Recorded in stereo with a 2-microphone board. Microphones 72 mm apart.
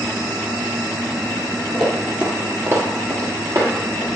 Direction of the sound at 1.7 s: 5° left (ahead or behind).